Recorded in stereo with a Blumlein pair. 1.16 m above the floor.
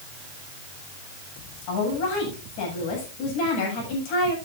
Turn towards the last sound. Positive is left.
turn(degrees=45)